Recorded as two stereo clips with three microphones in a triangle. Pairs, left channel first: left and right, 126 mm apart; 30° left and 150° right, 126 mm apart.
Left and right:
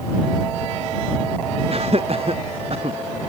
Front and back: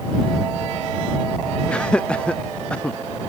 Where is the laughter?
50° right.